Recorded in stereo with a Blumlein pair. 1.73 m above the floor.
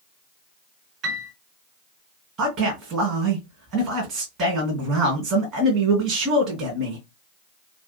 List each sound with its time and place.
1.0 s a piano: 35° right, 1.3 m
2.4 s a man speaking: 35° right, 1.3 m